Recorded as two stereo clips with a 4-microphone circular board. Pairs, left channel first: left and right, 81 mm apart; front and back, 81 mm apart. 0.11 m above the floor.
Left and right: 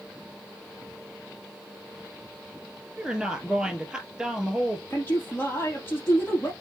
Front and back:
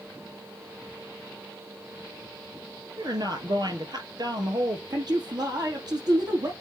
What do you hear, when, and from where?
3.0 s a woman speaking: 170° right, 1.9 m
4.9 s a man speaking: 150° left, 4.5 m